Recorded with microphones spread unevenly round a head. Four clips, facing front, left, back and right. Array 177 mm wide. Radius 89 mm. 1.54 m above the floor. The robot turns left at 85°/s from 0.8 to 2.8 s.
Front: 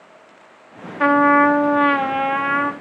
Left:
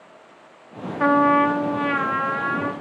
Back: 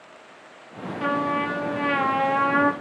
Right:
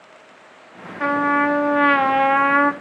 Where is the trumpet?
15° left, 1.1 m; by 2.7 s 130° right, 1.1 m.